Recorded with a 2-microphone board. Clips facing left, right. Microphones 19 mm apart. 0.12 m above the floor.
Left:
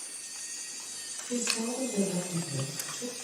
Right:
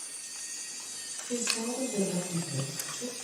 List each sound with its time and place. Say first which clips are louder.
1.3 s a woman speaking: even; 50° right (ahead or behind), 2.5 m